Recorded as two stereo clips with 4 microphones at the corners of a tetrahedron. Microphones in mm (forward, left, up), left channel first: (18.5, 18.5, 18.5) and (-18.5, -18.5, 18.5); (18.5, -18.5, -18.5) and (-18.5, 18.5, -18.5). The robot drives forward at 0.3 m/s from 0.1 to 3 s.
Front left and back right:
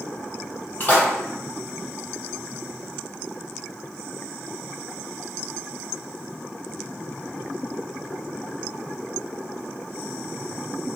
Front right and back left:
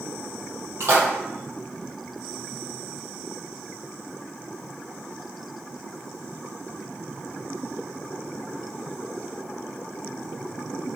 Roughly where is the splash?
Left.